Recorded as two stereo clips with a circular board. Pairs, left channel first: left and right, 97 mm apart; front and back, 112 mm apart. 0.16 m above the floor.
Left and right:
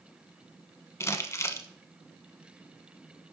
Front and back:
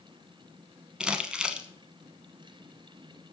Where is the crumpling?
105° left, 0.8 m.